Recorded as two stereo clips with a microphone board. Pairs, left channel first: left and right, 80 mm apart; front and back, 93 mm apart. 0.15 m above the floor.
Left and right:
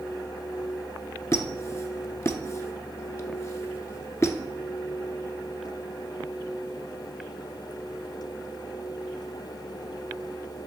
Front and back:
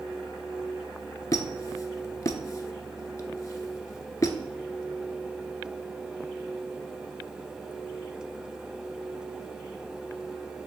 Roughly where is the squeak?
Ahead left.